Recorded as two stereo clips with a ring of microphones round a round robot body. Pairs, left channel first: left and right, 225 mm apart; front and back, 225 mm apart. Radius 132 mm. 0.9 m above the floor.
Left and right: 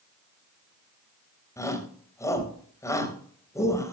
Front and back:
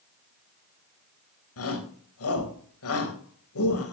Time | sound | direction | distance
1.6 | a shout | 15° left | 4 m